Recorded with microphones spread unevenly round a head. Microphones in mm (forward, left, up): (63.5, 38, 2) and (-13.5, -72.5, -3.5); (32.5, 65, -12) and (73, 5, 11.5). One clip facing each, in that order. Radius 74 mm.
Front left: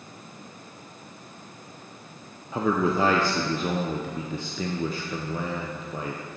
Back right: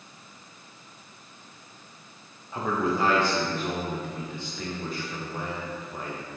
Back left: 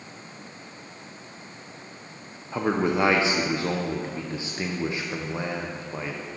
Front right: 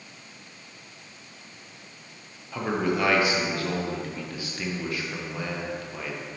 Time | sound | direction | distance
2.5 | a man speaking | 50° left | 0.7 m